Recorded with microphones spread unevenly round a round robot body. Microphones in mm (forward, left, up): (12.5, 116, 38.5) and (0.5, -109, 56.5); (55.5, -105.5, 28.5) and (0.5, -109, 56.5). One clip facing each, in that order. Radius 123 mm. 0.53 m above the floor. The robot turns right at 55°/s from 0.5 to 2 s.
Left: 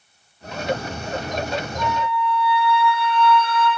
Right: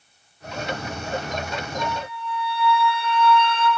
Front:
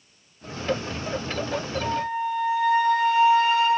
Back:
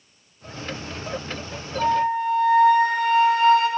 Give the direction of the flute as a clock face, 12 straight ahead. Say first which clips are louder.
Left 5 dB, back 8 dB; 6 o'clock.